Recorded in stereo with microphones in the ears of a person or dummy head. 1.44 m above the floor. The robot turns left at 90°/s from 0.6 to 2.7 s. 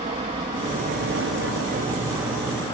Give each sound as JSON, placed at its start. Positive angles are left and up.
{"t": 0.0, "sound": "an aircraft", "side_deg": -35}